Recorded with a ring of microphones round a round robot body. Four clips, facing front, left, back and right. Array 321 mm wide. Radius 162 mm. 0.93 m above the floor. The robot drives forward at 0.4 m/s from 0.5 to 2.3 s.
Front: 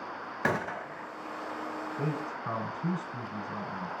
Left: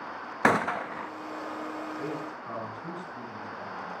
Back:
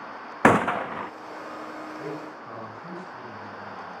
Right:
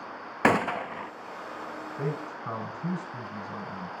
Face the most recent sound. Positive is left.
turn(degrees=-40)